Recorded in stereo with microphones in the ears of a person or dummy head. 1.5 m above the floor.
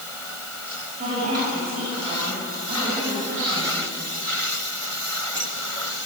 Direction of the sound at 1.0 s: 45° right (ahead or behind).